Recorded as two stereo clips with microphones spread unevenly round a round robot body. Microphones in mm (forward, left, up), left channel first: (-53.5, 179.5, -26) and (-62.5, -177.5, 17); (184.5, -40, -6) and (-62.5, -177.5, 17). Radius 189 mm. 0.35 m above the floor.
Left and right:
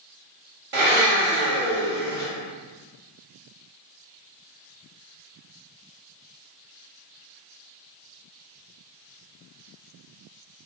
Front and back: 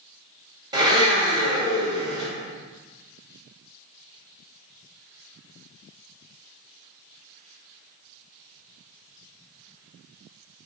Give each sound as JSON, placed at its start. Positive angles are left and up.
{"t": 0.7, "sound": "a blender", "azimuth_deg": -85, "distance_m": 1.4}